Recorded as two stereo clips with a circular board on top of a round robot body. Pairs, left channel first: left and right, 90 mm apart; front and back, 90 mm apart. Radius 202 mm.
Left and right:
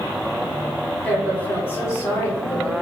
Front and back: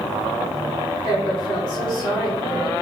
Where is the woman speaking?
15° left, 2 m; by 2.7 s 45° left, 2.5 m.